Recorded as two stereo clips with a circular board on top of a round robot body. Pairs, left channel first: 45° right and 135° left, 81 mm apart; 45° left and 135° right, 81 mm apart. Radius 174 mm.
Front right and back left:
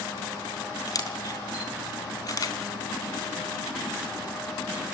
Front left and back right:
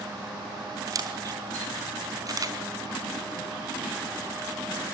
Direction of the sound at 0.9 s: 90° right.